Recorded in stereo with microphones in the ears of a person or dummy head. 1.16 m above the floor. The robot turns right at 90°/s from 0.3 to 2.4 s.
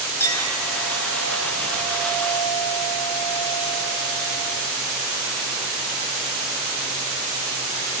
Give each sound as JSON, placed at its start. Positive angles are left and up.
{"t": 0.2, "sound": "a clink", "azimuth_deg": 170, "distance_m": 4.0}